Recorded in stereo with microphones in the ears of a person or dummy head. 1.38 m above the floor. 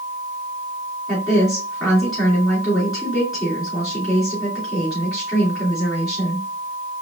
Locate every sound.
1.1 s a woman speaking: 10° left (ahead or behind), 3 m